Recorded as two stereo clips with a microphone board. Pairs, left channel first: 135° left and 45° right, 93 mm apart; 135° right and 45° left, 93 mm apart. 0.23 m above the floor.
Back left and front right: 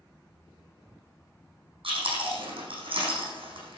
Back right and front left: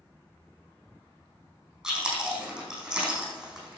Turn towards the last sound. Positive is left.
turn(degrees=-40)